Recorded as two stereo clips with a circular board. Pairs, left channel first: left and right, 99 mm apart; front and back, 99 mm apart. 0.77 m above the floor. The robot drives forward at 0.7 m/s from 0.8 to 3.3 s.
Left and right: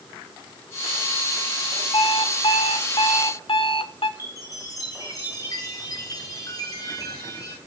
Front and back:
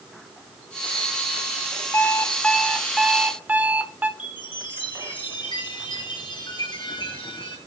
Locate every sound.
1.9 s an alarm clock: 65° left, 1.3 m; by 4.1 s 110° left, 1.3 m
4.2 s a chime: 40° left, 4 m